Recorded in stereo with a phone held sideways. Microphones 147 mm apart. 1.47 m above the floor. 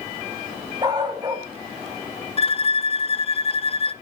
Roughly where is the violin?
Left.